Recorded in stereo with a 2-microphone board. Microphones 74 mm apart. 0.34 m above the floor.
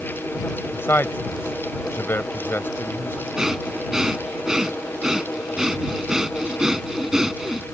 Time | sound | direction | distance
0.7 | a man speaking | 35° left (ahead or behind) | ?
3.4 | breathing | 10° right (ahead or behind) | ?